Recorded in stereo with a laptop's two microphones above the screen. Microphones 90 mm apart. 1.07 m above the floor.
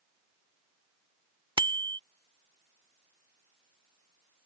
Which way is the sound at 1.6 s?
70° right (ahead or behind).